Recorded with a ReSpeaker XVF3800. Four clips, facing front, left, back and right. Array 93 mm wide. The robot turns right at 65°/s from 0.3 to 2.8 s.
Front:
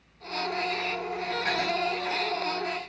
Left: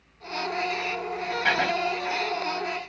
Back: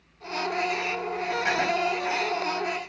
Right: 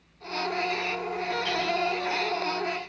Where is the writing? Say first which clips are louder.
Left 8 dB, back 3 dB; 110° left; by 1.7 s 125° left.